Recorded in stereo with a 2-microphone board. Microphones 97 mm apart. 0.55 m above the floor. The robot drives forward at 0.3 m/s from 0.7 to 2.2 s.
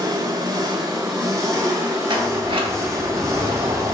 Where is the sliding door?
65° right (ahead or behind), 2.5 m.